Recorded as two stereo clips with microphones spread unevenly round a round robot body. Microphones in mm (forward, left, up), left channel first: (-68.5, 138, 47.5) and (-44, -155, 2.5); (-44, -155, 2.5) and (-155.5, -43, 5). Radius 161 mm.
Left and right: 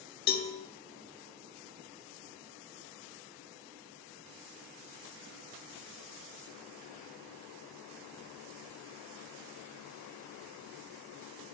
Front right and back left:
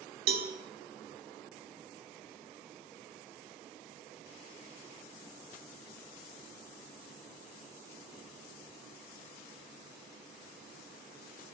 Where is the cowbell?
150° left, 0.7 m.